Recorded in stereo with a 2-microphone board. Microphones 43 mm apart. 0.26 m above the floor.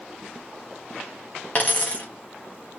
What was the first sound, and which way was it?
A dropped coin, 30° left (ahead or behind).